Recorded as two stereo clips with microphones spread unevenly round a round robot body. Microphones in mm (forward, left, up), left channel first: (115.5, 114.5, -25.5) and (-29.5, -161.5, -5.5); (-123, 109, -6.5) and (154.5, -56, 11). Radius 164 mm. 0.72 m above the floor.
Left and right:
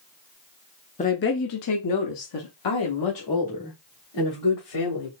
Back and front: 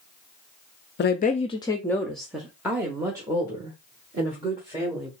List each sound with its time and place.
1.0 s a woman speaking: 115° left, 0.5 m; by 5.1 s 45° left, 2 m